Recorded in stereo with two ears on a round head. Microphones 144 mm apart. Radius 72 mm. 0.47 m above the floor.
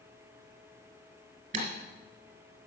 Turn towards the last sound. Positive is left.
turn(degrees=-45)  # may be behind; listen again after turning